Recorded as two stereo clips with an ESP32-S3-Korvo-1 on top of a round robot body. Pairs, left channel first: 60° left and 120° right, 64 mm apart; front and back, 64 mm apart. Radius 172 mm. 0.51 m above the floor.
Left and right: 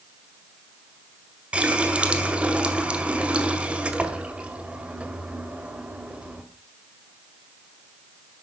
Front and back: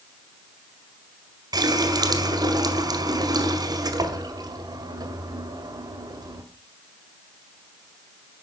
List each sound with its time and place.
1.5 s a running tap: 170° left, 2 m